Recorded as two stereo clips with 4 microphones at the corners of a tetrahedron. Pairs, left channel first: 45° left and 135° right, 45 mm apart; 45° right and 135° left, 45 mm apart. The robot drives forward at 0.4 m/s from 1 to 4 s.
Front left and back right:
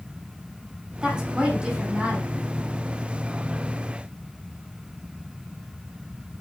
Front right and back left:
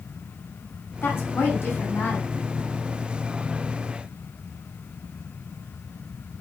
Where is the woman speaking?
65° right, 5.5 m; by 2.3 s 70° right, 5.5 m.